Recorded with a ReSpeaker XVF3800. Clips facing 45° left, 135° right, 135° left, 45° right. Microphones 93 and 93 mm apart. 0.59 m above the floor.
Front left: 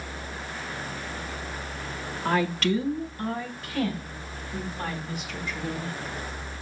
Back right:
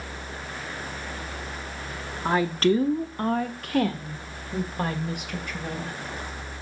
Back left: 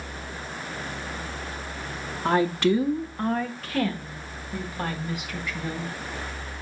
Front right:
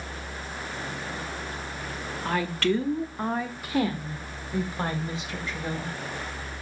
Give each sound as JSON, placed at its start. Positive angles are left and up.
{"t": 2.2, "sound": "a woman speaking", "azimuth_deg": 160, "distance_m": 0.6}